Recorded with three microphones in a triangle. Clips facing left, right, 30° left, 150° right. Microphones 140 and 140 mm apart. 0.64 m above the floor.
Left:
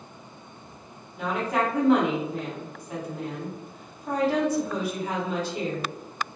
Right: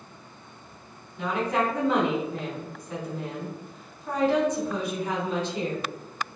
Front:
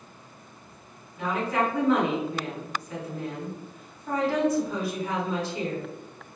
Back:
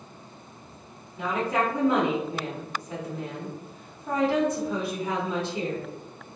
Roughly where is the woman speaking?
Behind.